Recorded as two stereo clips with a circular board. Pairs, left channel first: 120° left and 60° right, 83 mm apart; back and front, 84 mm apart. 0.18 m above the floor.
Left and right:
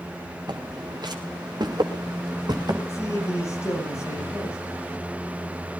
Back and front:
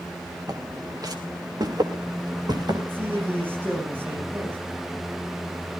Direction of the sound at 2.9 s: 65° left.